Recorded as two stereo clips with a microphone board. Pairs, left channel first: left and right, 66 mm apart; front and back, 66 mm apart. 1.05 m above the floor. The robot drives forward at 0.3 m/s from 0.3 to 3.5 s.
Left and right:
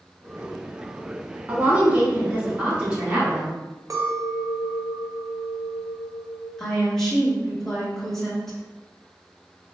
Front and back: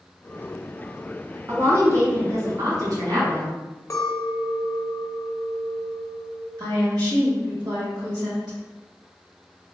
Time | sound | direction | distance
1.5 | a woman speaking | 145° right | 0.8 m
3.9 | a clink | 45° right | 0.6 m
6.6 | a woman speaking | 175° left | 1.4 m